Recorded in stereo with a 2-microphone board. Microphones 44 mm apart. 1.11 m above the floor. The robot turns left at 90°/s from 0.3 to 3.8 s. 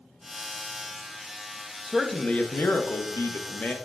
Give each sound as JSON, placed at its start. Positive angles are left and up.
{"t": 1.9, "sound": "a man speaking", "azimuth_deg": -165, "distance_m": 0.5}